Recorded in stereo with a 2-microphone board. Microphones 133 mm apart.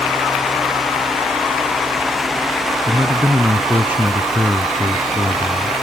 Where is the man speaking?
15° right (ahead or behind).